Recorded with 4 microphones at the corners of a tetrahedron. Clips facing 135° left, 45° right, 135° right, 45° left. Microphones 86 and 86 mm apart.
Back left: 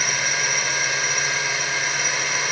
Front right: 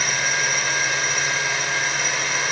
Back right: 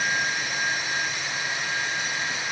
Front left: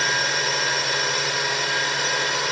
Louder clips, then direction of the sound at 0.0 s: Front right 1 dB, front left 3 dB; 45° left.